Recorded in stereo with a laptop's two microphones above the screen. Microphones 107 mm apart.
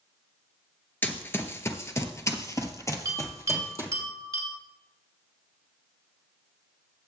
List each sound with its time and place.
1.0 s running footsteps: 20° left (ahead or behind), 1.0 m; by 3.9 s 30° left (ahead or behind), 1.8 m
3.0 s a bell: 30° right (ahead or behind), 2 m